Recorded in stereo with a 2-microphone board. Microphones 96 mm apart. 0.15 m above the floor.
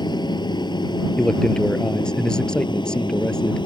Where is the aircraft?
50° left (ahead or behind); by 3.7 s 55° left (ahead or behind).